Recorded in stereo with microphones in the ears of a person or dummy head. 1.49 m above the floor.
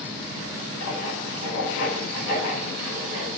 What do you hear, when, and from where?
0.8 s writing: 90° left, 6.5 m